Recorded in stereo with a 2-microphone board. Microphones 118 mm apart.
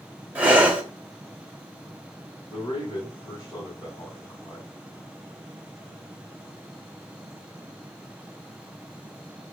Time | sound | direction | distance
0.3 | breathing | 15° right (ahead or behind) | 1.2 m
2.5 | a man speaking | 55° left (ahead or behind) | 2.5 m